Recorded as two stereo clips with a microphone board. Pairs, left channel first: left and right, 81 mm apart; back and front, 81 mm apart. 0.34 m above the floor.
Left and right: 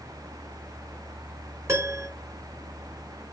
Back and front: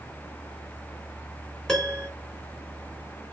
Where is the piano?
105° right, 1.0 m.